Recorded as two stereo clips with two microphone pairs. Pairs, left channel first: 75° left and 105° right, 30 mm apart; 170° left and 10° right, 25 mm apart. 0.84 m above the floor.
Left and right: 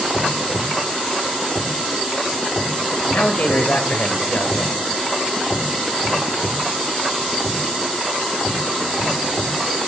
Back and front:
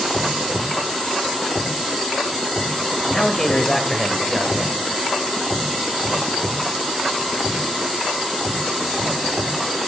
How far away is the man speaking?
About 4 m.